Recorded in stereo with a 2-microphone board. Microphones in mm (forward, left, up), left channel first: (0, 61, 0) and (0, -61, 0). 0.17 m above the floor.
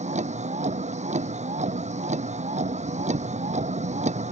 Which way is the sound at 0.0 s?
70° right (ahead or behind).